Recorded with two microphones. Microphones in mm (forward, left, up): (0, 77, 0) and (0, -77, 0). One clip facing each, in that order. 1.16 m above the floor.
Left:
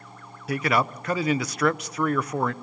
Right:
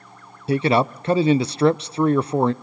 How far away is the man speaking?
About 0.6 m.